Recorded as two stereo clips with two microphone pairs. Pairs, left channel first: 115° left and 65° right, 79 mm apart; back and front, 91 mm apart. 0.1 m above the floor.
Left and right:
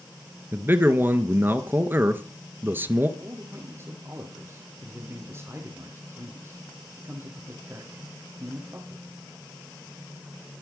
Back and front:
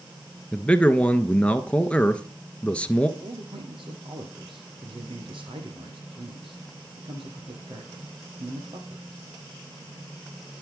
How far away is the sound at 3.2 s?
About 5 m.